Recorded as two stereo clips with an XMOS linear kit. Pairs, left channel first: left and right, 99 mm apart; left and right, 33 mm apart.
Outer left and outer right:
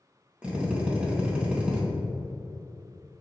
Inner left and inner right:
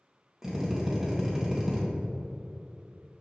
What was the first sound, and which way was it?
A drill, 10° right (ahead or behind).